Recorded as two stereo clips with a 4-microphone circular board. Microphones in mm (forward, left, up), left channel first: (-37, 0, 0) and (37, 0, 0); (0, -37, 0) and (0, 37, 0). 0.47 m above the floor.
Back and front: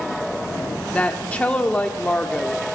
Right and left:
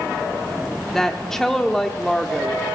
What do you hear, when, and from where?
0.9 s a woman speaking: 155° right, 0.8 m